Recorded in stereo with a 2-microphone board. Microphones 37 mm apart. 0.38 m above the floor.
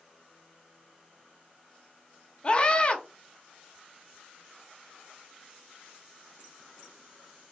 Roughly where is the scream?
Left.